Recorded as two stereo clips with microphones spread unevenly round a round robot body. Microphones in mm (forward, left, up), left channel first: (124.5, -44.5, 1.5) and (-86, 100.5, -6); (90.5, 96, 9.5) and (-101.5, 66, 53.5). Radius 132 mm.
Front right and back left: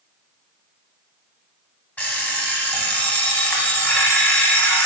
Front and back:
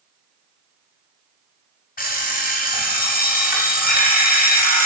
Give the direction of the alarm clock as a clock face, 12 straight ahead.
10 o'clock.